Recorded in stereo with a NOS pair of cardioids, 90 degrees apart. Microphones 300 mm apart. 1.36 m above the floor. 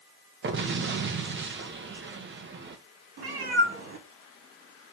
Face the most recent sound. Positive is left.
turn(degrees=-45)